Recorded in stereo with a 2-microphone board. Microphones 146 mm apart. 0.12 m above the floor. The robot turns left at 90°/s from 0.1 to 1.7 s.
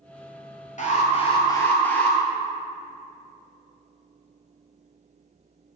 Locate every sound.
0.8 s an alarm: 95° left, 1.4 m; by 2.2 s 15° left, 1.4 m